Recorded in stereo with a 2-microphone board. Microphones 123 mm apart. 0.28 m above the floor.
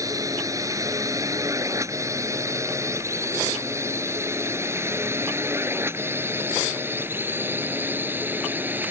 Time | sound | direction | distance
0.0 | a drone | 25° right (ahead or behind) | ?